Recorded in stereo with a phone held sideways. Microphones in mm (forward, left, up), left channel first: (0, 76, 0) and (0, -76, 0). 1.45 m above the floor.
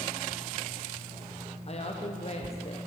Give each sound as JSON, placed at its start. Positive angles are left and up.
{"t": 1.7, "sound": "a woman speaking", "side_deg": 45, "distance_m": 0.9}